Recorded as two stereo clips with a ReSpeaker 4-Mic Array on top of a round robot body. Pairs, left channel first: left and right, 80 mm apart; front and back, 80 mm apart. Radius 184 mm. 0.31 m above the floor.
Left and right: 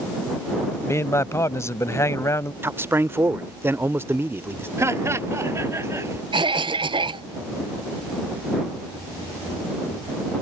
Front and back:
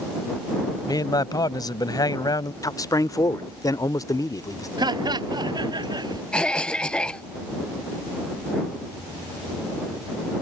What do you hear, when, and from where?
0.8 s a man speaking: 35° left
2.6 s a man speaking: 35° right
4.8 s laughter: 145° right
6.3 s a cough: 80° right